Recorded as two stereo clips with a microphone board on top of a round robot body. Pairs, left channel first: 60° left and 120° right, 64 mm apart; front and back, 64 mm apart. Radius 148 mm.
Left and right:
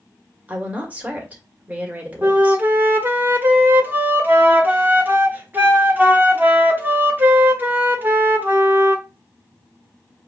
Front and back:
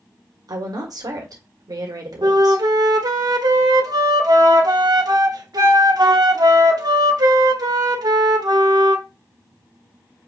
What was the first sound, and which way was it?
A woman speaking, 175° left.